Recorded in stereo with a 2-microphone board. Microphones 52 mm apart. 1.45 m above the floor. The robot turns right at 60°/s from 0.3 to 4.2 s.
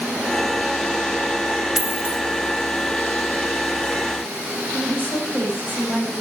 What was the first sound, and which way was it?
A dropped coin, 15° right (ahead or behind).